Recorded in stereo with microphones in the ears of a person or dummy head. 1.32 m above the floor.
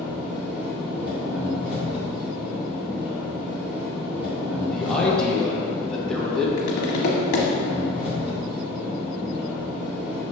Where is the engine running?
10° right (ahead or behind), 2 m.